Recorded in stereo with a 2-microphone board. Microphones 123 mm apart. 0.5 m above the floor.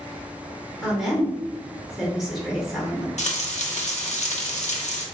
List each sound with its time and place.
0.8 s a woman speaking: 5° right (ahead or behind), 1.0 m
3.2 s frying: 70° left (ahead or behind), 0.6 m